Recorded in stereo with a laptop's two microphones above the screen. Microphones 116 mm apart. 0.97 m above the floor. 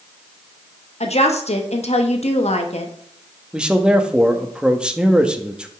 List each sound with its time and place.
1.0 s a woman speaking: 65° left (ahead or behind), 1.2 m
3.5 s a man speaking: 5° right (ahead or behind), 1.4 m